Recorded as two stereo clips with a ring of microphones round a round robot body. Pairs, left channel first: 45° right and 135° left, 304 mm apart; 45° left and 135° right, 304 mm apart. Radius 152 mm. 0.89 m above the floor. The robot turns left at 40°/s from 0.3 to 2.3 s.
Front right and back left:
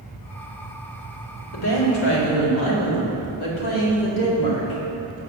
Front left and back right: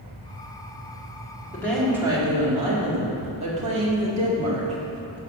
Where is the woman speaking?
35° right, 2.0 m; by 5.2 s 65° right, 2.0 m.